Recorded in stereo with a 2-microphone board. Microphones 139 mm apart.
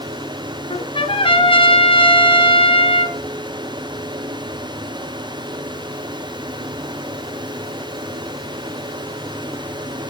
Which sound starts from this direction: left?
A trumpet, at 0.7 s.